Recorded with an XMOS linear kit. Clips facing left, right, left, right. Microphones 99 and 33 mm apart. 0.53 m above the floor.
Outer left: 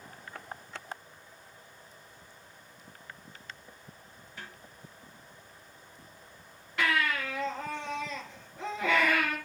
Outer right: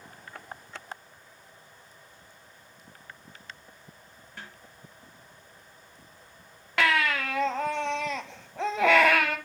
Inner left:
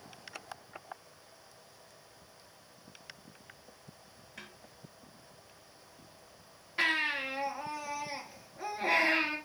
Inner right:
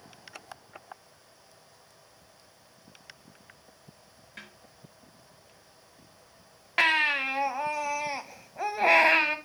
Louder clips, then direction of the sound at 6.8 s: Outer right 4 dB, inner right 7 dB; 80° right.